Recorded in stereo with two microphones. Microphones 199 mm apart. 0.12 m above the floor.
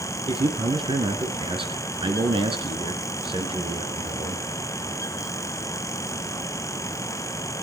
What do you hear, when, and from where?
0.3 s a man speaking: 25° right (ahead or behind), 1.8 m